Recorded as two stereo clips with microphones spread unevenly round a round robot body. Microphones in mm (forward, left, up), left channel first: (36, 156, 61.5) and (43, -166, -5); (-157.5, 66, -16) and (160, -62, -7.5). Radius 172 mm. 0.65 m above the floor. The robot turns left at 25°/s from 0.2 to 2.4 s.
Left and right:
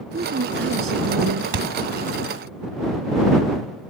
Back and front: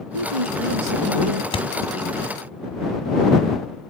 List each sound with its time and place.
0.1 s a woman speaking: 25° right; by 1.4 s 55° right
1.5 s a thud: 125° right; by 1.7 s 130° right